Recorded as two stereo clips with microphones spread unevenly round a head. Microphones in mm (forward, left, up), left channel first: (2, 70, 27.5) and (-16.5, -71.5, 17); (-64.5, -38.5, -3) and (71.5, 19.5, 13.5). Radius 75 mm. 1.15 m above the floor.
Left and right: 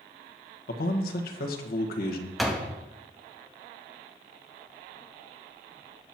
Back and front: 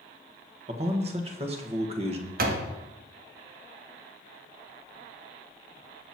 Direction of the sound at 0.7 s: 75° left.